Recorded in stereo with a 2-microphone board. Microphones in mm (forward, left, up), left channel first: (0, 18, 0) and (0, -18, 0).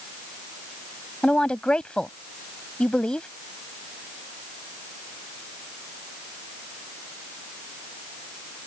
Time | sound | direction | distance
1.2 | a woman speaking | 25° left (ahead or behind) | ?